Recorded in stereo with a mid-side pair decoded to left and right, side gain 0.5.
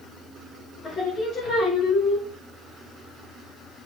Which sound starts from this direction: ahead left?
Singing, at 0.8 s.